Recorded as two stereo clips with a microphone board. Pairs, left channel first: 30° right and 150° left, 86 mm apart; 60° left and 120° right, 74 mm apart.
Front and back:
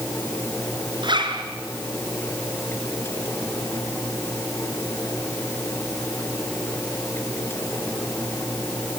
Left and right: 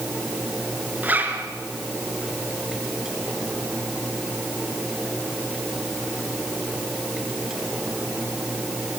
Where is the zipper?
175° left, 3 m.